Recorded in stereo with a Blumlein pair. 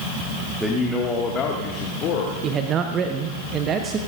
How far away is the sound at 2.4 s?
About 1.0 m.